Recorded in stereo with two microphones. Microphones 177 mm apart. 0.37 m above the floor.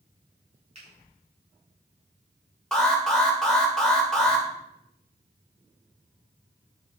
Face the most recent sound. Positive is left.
turn(degrees=5)  # may be behind; listen again after turning